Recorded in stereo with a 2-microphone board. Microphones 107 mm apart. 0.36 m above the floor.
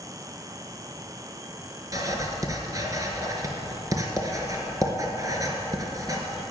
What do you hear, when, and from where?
1.9 s writing: 35° right (ahead or behind), 1.6 m